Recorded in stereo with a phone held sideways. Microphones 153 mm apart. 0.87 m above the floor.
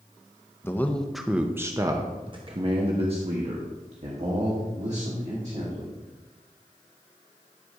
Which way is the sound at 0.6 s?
15° left (ahead or behind).